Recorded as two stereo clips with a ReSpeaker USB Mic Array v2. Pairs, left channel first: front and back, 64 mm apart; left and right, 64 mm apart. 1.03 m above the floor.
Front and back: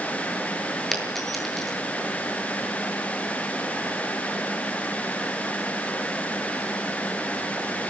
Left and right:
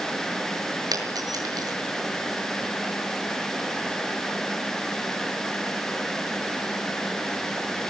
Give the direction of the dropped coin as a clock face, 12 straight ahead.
3 o'clock.